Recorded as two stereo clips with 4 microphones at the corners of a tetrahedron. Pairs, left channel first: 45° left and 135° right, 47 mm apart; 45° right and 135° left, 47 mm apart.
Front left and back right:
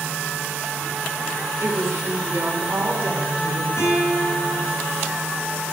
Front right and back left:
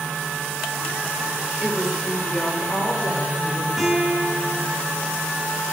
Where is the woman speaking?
145° right, 2.5 m; by 3.7 s 85° right, 3 m.